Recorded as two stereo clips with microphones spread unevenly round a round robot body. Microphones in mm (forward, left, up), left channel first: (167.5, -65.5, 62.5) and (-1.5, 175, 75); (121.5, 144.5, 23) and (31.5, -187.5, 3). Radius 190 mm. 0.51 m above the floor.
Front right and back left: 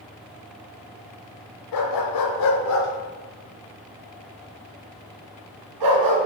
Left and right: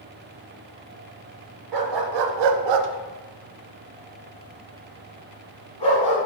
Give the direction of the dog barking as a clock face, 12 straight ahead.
3 o'clock.